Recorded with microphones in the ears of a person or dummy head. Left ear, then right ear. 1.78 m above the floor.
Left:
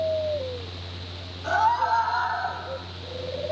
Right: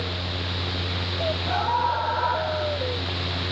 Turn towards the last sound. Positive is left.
turn(degrees=35)  # may be behind; listen again after turning